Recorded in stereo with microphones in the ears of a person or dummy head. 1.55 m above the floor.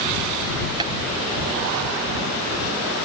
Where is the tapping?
25° right (ahead or behind).